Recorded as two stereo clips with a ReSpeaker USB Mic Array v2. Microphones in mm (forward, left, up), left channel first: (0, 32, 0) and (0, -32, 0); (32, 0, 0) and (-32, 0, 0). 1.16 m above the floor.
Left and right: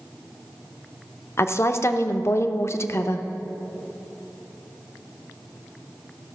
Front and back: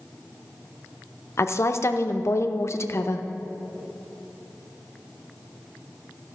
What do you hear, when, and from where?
1.4 s a woman speaking: 40° left, 0.6 m